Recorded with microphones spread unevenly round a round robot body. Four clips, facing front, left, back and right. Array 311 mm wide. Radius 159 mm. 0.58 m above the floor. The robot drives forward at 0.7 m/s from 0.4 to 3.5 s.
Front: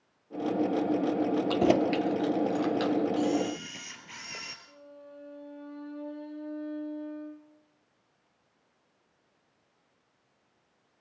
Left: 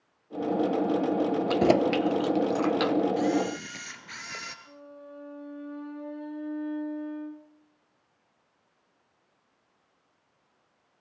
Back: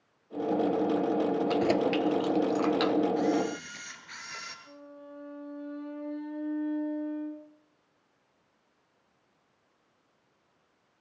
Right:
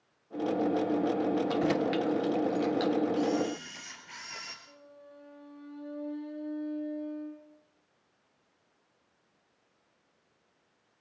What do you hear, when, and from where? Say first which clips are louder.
1.5 s keys jangling: left 6 dB, front 4 dB; 55° left, 1.1 m; by 3.0 s 120° left, 1.0 m
3.2 s a camera shutter: left 3 dB, even; 50° left, 2.5 m; by 4.5 s 55° left, 2 m
4.7 s a violin: left 7 dB, back 2 dB; 110° left, 6.5 m